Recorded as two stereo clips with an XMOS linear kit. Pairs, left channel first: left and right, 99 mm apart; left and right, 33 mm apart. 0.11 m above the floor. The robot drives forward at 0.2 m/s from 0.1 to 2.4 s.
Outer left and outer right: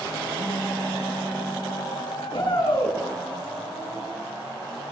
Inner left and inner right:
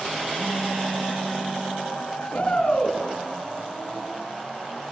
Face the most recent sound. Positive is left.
turn(degrees=80)